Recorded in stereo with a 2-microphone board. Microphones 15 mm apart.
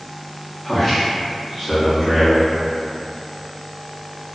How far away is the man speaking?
About 0.7 m.